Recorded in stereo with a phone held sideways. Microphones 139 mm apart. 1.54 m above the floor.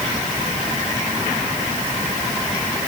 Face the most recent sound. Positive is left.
No sound to turn to.